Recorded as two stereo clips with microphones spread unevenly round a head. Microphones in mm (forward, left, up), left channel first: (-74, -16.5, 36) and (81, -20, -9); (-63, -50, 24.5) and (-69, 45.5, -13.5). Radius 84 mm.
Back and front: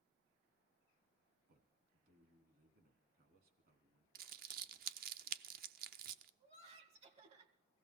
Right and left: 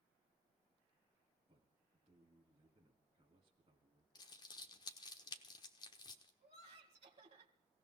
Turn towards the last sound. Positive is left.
turn(degrees=55)